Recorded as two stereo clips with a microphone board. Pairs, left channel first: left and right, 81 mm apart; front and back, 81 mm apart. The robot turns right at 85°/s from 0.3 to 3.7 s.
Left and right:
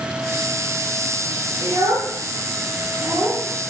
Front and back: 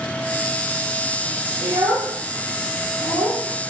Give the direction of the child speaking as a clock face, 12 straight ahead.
6 o'clock.